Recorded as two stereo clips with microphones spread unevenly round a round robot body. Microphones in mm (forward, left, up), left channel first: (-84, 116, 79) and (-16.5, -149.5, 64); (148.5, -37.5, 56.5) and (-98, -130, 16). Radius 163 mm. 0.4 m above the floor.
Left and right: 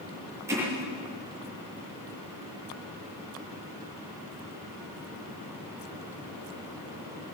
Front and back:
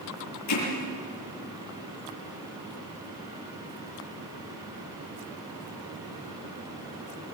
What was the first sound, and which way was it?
Hammering, 5° left.